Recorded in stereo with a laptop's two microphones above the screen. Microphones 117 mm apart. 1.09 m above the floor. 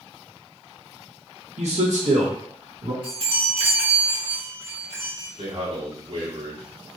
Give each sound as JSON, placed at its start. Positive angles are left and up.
{"t": 1.6, "sound": "a man speaking", "side_deg": -70, "distance_m": 1.3}
{"t": 3.0, "sound": "a chime", "side_deg": -50, "distance_m": 1.9}
{"t": 5.4, "sound": "a man speaking", "side_deg": -60, "distance_m": 1.9}